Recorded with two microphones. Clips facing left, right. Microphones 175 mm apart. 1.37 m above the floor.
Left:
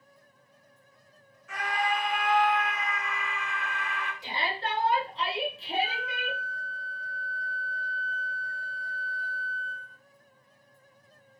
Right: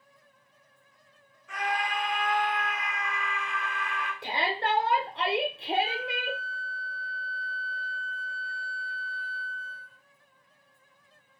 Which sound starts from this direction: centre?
A scream, at 1.5 s.